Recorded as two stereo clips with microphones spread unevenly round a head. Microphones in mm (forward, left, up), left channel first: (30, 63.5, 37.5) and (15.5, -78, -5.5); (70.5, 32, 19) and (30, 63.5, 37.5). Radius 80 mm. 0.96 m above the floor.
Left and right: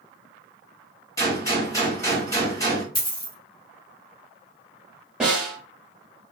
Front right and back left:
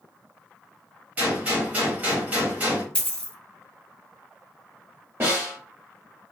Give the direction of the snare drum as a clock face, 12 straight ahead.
6 o'clock.